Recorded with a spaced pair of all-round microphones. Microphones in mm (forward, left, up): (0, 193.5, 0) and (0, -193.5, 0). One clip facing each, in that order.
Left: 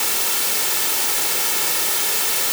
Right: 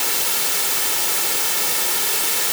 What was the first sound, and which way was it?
Only background noise.